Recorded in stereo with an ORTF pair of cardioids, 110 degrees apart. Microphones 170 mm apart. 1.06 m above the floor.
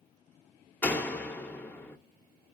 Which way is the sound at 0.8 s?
10° left.